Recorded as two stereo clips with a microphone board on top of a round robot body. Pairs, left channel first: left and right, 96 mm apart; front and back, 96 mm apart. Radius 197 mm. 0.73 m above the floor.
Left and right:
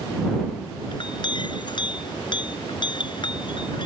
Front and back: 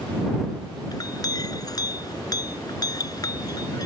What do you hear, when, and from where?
0.9 s a clink: 50° left